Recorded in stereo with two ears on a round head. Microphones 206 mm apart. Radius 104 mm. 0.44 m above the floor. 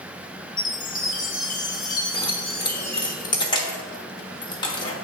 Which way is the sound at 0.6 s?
35° left (ahead or behind).